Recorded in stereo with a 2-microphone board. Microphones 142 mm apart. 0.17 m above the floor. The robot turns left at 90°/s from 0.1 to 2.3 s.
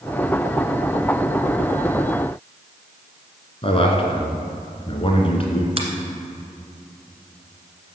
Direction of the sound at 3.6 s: 45° left (ahead or behind).